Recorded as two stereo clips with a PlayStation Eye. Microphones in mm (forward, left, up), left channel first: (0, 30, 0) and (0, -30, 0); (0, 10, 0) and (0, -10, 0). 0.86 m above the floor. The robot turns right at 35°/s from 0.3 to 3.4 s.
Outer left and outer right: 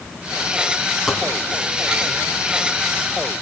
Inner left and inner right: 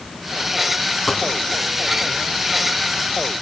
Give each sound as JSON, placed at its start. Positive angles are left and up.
{"t": 1.1, "sound": "a dropped coin", "side_deg": 0, "distance_m": 2.5}